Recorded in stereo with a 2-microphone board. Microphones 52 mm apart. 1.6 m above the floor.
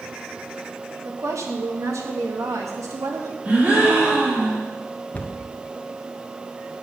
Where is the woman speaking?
70° right (ahead or behind), 2 m; by 3.4 s 85° right, 4 m.